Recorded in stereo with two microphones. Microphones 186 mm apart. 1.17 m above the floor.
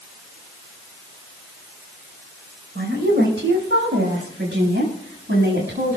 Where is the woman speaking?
80° right, 5 m.